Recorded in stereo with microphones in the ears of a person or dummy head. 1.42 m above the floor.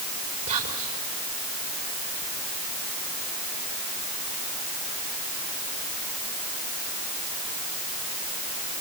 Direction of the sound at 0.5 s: 45° right (ahead or behind).